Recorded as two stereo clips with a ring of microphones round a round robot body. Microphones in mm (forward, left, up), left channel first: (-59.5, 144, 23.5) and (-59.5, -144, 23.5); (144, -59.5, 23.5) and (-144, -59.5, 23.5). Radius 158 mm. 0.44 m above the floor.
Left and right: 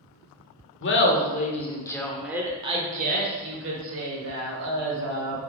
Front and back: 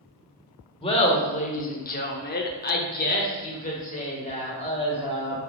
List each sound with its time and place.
0.8 s laughter: 65° left, 1.2 m; by 5.4 s 65° right, 2 m